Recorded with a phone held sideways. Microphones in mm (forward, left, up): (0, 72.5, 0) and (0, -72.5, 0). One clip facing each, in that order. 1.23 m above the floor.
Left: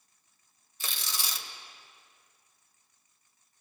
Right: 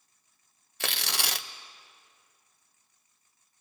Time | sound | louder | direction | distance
0.8 | tearing paper | right 6 dB | 80° right | 0.6 m